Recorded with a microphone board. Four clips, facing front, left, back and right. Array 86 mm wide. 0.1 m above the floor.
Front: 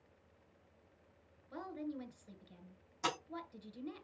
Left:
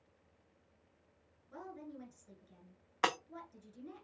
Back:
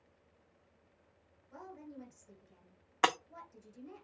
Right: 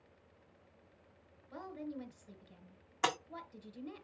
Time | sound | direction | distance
1.5 | a woman speaking | 20° right | 1.4 m
3.0 | breaking glass | 165° left | 1.0 m